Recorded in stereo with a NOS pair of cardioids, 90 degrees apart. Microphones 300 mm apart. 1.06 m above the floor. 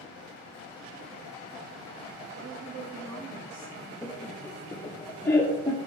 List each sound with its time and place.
2.3 s a woman speaking: 65° right, 1.7 m; by 3.9 s 60° right, 2.5 m
4.0 s laughter: 10° left, 0.7 m